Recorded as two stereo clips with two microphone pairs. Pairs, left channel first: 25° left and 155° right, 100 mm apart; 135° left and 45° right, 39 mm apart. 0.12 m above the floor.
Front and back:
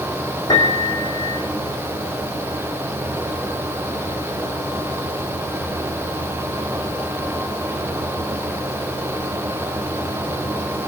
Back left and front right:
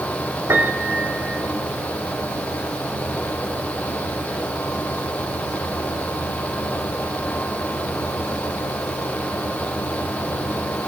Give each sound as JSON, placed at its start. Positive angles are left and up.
{"t": 0.5, "sound": "a piano", "azimuth_deg": -25, "distance_m": 5.5}